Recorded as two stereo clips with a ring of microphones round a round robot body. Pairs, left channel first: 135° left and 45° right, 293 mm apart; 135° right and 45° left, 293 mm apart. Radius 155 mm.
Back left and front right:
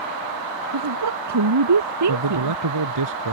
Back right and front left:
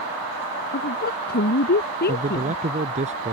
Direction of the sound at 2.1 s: 20° right.